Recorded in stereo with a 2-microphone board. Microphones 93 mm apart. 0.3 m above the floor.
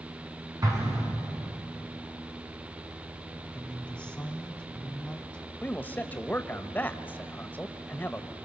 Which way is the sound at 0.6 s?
40° right (ahead or behind).